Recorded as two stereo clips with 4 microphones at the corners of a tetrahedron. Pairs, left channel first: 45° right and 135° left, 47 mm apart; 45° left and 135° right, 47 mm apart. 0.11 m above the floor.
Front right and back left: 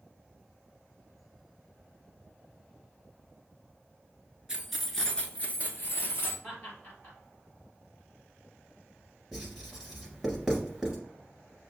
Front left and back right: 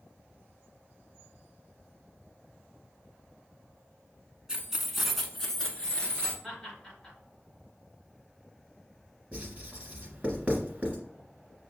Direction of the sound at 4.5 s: Straight behind.